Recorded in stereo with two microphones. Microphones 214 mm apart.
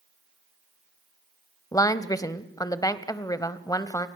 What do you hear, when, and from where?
1.7 s a woman speaking: 15° left (ahead or behind), 1.0 m